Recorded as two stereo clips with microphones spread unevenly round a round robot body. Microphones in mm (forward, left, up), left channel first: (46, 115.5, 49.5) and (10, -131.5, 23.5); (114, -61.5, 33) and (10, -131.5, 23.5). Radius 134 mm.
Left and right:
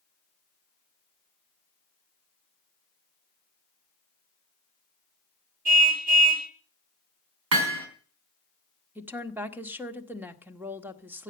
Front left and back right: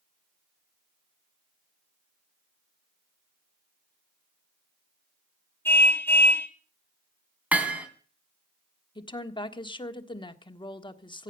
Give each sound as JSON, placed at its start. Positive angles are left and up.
{"t": 5.7, "sound": "a car horn", "azimuth_deg": -40, "distance_m": 2.0}
{"t": 7.5, "sound": "hammering", "azimuth_deg": -65, "distance_m": 3.5}
{"t": 8.9, "sound": "a woman speaking", "azimuth_deg": -20, "distance_m": 1.6}